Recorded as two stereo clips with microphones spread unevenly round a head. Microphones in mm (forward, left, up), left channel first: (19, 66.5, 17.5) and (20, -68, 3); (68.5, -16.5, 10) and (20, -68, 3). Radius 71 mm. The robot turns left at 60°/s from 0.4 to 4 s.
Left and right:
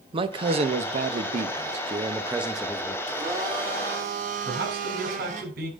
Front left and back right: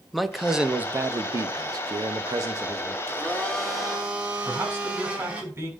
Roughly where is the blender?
Ahead.